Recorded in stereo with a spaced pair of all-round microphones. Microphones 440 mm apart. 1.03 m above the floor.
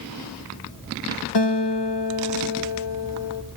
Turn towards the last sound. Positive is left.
turn(degrees=60)  # may be behind; listen again after turning